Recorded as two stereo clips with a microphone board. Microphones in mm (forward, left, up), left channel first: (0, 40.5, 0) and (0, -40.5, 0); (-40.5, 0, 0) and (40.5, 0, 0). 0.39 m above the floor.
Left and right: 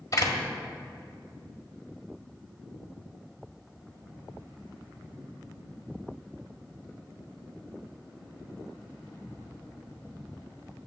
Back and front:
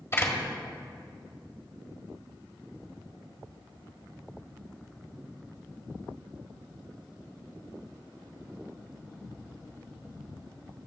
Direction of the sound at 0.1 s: 130° left.